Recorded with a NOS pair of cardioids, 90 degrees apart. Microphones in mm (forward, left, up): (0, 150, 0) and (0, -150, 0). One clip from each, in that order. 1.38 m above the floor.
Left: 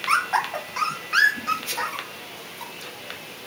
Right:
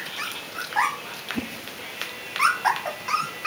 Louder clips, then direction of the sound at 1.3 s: Left 3 dB; 40° right.